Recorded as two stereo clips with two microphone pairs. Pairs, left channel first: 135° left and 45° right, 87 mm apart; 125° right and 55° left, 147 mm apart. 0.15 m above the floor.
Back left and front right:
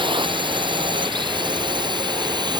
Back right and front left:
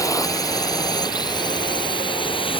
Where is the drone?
60° right; by 2.6 s 75° right.